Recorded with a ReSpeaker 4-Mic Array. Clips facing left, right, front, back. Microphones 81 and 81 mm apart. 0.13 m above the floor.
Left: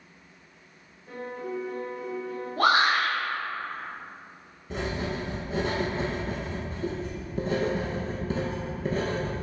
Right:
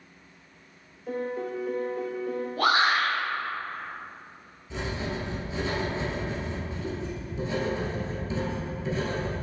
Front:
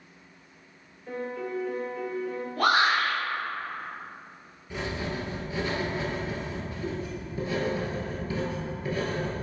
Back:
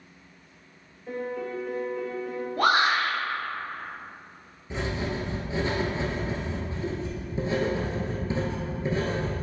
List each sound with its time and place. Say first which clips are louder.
1.1 s a piano: right 4 dB, back 1 dB; 95° right, 0.8 m
2.6 s a shout: left 1 dB, back 1 dB; 105° left, 1.9 m
4.7 s writing: left 2 dB, back 2 dB; 115° left, 1.1 m